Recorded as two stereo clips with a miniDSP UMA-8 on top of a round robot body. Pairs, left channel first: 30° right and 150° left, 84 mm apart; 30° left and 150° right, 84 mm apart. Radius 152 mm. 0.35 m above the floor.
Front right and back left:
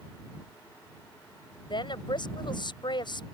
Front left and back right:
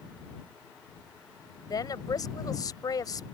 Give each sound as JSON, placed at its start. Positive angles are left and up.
{"t": 1.7, "sound": "a woman speaking", "azimuth_deg": -10}